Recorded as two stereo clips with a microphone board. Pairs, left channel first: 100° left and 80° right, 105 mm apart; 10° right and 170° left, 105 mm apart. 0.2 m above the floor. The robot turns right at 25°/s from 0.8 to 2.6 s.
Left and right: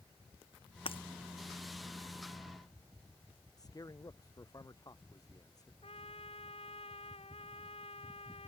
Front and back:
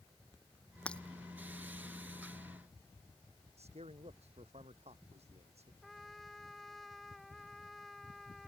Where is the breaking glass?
65° left; by 1.0 s 70° left.